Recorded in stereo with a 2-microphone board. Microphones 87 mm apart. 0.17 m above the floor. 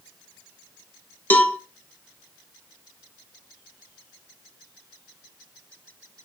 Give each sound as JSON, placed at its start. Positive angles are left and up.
{"t": 1.3, "sound": "a cowbell", "side_deg": 20, "distance_m": 0.5}